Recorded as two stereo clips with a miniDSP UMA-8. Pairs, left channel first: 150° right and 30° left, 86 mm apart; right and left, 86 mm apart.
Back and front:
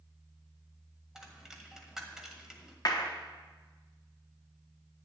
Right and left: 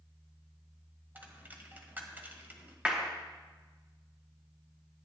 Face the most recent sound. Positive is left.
turn(degrees=170)